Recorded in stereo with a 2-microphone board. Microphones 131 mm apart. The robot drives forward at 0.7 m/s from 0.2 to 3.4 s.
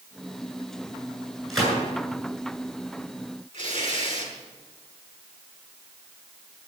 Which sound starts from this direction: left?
Tearing paper, at 3.5 s.